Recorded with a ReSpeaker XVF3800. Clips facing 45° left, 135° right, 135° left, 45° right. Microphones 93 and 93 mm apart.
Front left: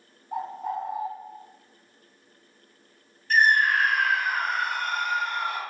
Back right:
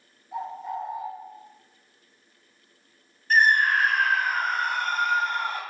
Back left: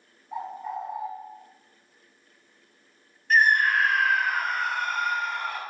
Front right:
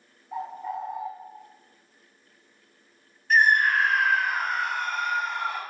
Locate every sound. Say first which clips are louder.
0.3 s a bird: front left 2 dB, front right 1 dB; 45° left, 0.6 m
3.3 s a scream: even, even; 135° right, 1.8 m